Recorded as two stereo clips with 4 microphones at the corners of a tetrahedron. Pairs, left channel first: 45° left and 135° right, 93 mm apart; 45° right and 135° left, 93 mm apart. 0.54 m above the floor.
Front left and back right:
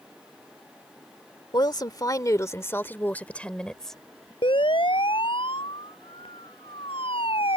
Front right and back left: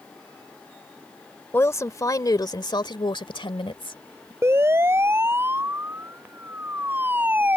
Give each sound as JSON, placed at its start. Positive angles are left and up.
{"t": 1.5, "sound": "a woman speaking", "azimuth_deg": 15}
{"t": 4.4, "sound": "a siren", "azimuth_deg": 70}